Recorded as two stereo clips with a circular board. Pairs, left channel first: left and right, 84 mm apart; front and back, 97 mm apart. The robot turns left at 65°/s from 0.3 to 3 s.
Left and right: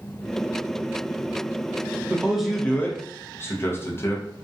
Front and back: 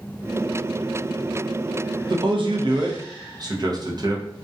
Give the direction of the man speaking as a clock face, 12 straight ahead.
5 o'clock.